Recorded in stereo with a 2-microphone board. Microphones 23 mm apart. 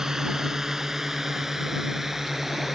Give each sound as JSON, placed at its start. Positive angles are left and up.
{"t": 0.0, "sound": "a drone", "side_deg": -30}